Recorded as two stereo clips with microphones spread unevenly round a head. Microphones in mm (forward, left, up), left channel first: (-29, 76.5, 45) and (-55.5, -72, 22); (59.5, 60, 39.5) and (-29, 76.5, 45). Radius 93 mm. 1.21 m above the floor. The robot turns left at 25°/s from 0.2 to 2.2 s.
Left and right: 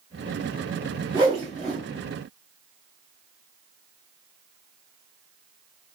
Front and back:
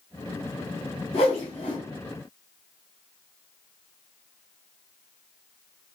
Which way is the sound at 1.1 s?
30° right.